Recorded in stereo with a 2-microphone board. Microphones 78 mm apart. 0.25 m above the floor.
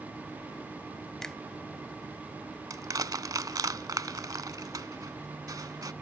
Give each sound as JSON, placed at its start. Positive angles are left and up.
{"t": 1.2, "sound": "a finger snap", "side_deg": 5}
{"t": 2.7, "sound": "crushing", "side_deg": -55}